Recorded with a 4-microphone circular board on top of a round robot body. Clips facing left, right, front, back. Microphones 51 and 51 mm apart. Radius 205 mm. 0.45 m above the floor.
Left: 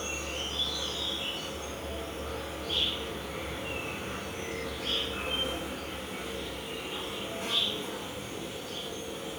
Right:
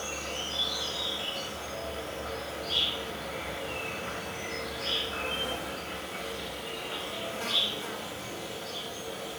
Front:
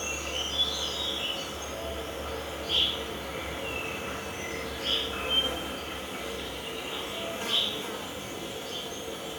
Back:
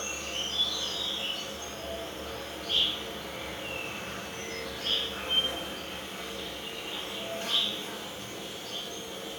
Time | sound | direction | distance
0.0 | an insect | 70° right | 1.3 m